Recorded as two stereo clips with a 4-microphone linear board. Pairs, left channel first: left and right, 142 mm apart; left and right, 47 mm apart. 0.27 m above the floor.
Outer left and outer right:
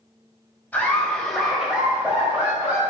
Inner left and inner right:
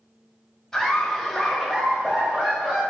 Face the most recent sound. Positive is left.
turn(degrees=-15)  # may be behind; listen again after turning